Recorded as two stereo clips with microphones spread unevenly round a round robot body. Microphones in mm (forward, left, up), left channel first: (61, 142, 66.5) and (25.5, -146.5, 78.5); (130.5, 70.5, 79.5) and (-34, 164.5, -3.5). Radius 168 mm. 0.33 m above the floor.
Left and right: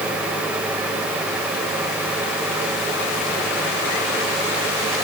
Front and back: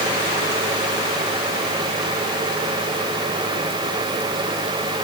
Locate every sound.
Only background noise.